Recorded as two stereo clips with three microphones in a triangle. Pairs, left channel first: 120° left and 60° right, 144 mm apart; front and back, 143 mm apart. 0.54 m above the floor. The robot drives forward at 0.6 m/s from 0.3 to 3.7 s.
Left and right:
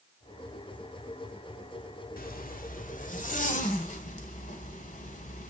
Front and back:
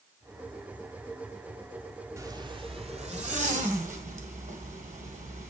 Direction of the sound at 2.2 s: 110° left.